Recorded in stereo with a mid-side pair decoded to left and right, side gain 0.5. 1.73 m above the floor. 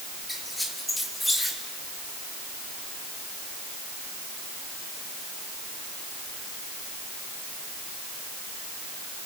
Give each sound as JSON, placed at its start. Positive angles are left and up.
{"t": 0.3, "sound": "a squeak", "azimuth_deg": 5, "distance_m": 3.0}